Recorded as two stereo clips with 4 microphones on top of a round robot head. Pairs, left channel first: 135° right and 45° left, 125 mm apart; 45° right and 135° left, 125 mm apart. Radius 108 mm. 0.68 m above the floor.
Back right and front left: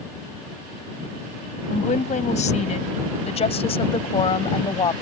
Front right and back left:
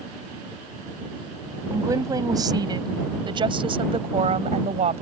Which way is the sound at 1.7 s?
160° right.